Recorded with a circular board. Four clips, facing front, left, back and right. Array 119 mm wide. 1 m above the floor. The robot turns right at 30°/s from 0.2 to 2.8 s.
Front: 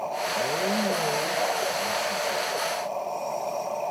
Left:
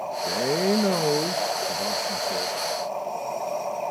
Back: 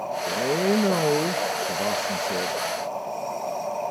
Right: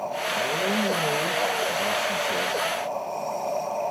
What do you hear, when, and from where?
0.2 s a man speaking: 125° left, 1.1 m; by 2.6 s 165° right, 1.1 m